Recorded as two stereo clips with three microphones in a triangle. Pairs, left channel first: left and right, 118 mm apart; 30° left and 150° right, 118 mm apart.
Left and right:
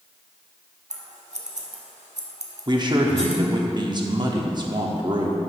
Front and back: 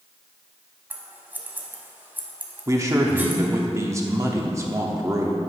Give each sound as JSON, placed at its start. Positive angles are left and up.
{"t": 0.9, "sound": "scissors", "azimuth_deg": -75, "distance_m": 0.9}
{"t": 2.7, "sound": "a man speaking", "azimuth_deg": -100, "distance_m": 0.9}